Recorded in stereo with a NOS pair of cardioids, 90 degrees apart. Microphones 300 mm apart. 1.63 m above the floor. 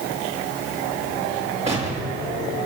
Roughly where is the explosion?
Ahead.